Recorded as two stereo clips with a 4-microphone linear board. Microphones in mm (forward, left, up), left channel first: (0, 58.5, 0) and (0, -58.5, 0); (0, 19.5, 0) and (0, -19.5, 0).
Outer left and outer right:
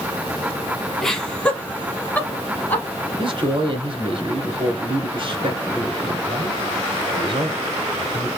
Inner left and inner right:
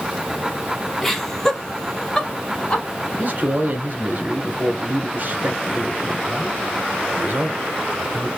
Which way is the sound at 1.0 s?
5° left (ahead or behind).